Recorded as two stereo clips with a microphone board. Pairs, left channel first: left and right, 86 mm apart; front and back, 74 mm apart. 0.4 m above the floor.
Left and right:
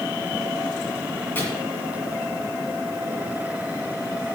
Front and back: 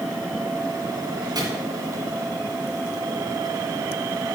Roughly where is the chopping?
Behind left.